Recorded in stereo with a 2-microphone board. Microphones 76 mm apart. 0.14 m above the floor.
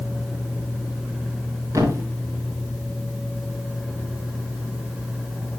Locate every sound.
1.7 s a thud: 45° right (ahead or behind), 5 m